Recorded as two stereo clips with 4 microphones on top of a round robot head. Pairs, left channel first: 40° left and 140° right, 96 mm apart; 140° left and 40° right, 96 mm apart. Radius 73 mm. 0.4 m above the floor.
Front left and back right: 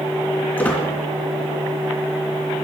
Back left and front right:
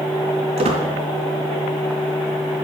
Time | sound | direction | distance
0.6 | a squeak | 35° right | 3.5 m